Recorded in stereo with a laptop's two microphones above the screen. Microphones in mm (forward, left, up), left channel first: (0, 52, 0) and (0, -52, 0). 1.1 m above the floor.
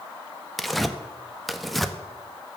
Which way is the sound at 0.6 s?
Centre (ahead or behind).